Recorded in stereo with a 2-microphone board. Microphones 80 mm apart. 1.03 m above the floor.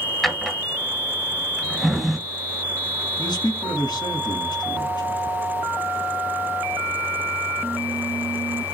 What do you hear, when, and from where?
0.2 s a drawer: centre (ahead or behind), 1.0 m
3.2 s a man speaking: 65° left (ahead or behind), 1.5 m